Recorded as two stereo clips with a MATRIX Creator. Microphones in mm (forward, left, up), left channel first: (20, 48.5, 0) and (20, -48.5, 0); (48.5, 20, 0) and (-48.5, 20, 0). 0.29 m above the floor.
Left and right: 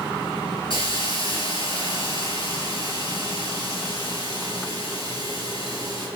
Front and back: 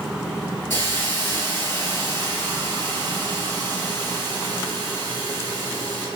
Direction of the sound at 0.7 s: 70° left.